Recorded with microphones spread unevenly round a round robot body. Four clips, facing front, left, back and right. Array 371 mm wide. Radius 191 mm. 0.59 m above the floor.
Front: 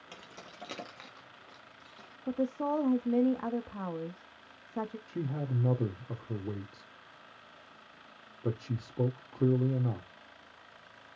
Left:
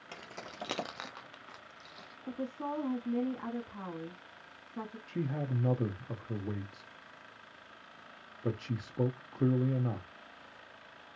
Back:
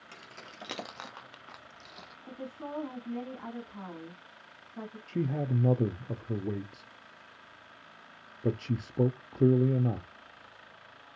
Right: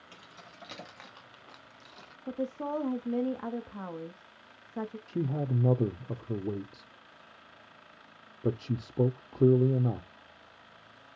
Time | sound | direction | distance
0.1 | keys jangling | 75° left | 0.8 m
2.3 | a woman speaking | 15° right | 0.8 m
5.1 | a man speaking | 145° right | 0.6 m